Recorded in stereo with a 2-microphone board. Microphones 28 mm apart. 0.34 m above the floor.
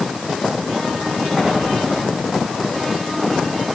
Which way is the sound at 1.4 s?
15° left (ahead or behind).